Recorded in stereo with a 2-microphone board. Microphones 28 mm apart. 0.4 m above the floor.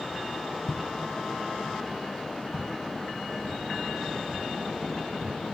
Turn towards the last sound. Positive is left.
turn(degrees=-15)  # may be behind; listen again after turning